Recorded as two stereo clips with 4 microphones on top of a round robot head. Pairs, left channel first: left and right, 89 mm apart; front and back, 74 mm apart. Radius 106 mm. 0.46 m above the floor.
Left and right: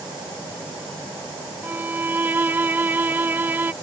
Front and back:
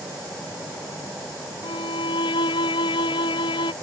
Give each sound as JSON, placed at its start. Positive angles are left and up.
{"t": 1.6, "sound": "a violin", "azimuth_deg": -20}